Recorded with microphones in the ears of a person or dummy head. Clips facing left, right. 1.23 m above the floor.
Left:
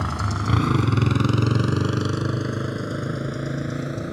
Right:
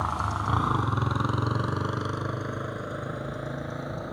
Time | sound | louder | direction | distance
0.0 | a motorcycle | left 4 dB | 35° left (ahead or behind) | ?